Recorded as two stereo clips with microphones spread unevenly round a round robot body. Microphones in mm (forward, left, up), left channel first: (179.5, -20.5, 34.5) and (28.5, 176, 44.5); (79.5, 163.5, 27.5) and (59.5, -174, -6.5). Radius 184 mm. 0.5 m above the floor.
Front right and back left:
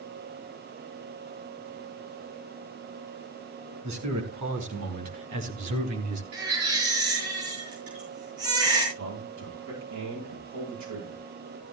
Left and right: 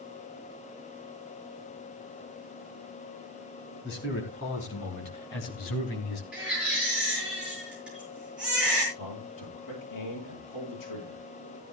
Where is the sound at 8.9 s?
130° left, 9.5 m.